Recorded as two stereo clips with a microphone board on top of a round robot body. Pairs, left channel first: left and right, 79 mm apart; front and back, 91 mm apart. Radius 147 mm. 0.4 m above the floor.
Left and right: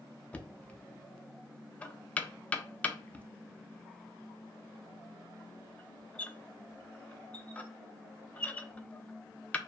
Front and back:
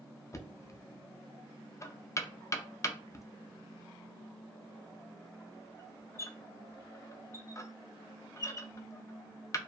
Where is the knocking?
25° left, 0.5 m.